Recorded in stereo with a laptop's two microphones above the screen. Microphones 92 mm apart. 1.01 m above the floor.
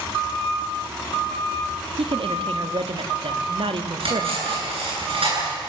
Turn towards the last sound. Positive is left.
turn(degrees=-80)